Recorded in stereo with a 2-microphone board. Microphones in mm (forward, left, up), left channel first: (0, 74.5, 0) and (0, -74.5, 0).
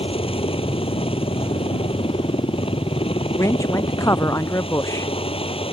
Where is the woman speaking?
20° left (ahead or behind).